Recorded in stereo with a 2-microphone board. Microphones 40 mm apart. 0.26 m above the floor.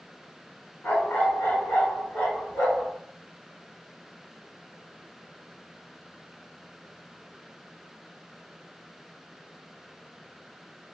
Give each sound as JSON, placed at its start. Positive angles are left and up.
{"t": 0.8, "sound": "a dog barking", "side_deg": 70, "distance_m": 1.2}